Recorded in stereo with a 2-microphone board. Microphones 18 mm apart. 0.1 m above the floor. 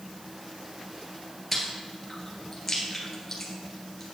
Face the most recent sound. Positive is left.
turn(degrees=10)  # may be behind; listen again after turning